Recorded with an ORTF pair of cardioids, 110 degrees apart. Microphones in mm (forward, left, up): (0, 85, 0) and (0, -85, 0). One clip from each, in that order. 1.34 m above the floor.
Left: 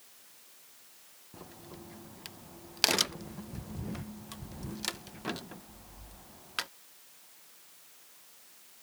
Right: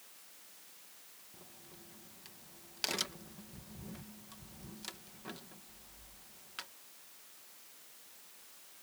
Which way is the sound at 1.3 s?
50° left.